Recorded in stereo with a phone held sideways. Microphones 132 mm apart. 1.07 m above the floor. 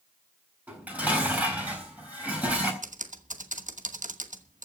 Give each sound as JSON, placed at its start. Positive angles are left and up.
{"t": 0.7, "sound": "dishes clattering", "side_deg": -10, "distance_m": 7.0}
{"t": 2.8, "sound": "typing on a keyboard", "side_deg": -70, "distance_m": 1.1}